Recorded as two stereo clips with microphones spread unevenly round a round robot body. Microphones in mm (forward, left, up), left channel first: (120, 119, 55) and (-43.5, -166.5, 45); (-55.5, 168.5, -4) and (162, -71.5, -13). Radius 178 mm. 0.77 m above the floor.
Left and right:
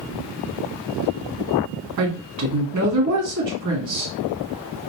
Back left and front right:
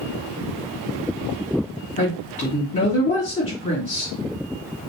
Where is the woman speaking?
160° right, 1.8 m.